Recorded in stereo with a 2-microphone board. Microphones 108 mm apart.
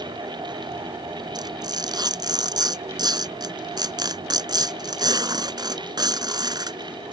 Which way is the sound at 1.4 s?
40° right (ahead or behind).